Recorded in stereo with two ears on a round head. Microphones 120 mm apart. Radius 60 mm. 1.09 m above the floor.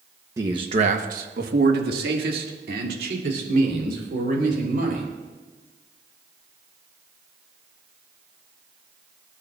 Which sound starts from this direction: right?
A man speaking, at 0.4 s.